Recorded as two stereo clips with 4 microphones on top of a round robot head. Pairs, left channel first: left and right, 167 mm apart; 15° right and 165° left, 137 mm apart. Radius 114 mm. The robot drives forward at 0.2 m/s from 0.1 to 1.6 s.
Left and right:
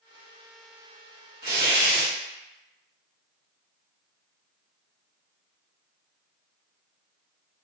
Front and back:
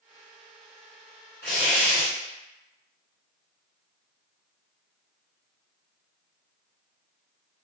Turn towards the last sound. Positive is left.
turn(degrees=-115)